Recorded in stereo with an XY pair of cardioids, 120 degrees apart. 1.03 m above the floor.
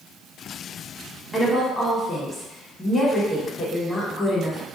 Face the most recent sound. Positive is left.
turn(degrees=15)